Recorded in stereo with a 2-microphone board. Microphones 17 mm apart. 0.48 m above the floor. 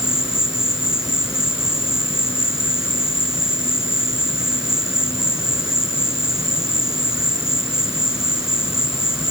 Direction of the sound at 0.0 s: 35° right (ahead or behind).